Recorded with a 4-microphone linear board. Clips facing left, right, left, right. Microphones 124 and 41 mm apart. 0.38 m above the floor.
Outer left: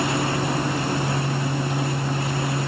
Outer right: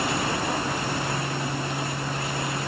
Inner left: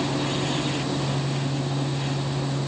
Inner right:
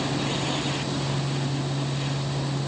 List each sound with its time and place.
Only background noise.